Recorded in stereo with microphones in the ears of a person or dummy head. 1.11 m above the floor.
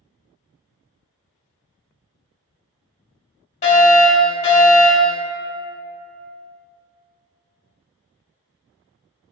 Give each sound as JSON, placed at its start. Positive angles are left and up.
{"t": 3.6, "sound": "a fire alarm", "side_deg": 40, "distance_m": 1.6}